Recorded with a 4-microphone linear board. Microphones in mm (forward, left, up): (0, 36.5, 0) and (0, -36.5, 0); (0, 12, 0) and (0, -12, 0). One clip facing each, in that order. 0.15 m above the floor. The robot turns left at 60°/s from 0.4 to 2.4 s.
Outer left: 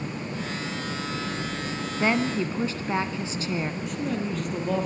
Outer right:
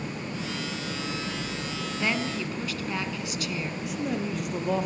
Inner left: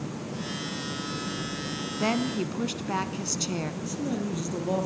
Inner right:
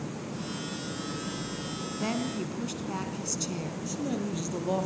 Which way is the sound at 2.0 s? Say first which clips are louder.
Outer left 6 dB, inner left 5 dB; 25° left (ahead or behind).